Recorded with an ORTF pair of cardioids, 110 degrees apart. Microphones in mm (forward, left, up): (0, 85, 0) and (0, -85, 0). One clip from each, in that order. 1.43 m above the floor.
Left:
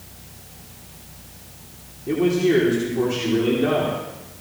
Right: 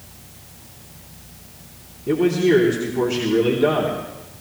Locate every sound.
2.1 s a man speaking: 20° right, 3.5 m